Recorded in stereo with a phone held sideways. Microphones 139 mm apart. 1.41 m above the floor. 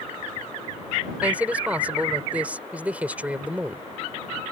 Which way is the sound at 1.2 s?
10° right (ahead or behind).